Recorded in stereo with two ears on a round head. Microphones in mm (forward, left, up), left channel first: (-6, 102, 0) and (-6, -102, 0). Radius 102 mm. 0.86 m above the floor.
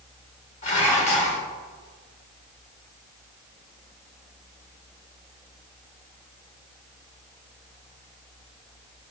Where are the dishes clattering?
35° left (ahead or behind), 1.7 m.